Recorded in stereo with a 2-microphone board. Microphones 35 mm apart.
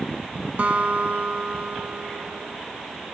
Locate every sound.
0.6 s a guitar: 55° right (ahead or behind), 0.5 m